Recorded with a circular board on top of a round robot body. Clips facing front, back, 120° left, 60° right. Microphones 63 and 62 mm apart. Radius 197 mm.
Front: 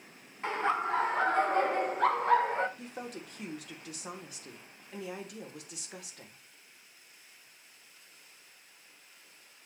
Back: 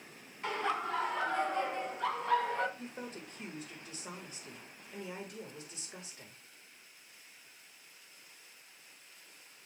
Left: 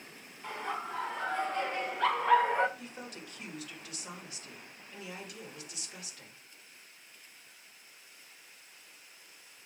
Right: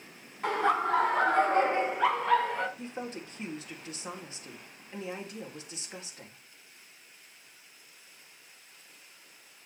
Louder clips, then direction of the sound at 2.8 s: Front 2 dB, right 7 dB; 5° right.